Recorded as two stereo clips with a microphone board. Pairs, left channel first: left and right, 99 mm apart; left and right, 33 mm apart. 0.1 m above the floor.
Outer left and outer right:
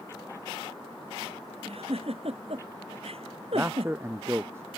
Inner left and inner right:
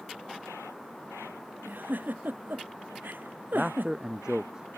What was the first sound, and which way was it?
A giggle, 80° right.